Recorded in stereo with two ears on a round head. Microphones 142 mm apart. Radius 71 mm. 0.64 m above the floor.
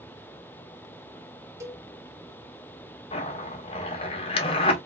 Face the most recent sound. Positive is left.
turn(degrees=35)  # may be behind; listen again after turning